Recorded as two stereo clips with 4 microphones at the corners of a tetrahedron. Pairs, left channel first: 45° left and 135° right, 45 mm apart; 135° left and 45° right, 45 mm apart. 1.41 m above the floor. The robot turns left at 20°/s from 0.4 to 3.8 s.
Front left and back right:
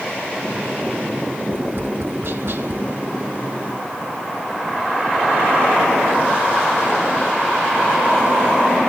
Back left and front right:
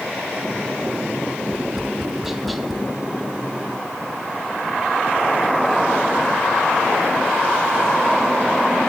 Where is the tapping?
115° right, 1.0 m; by 2.8 s 140° right, 1.0 m.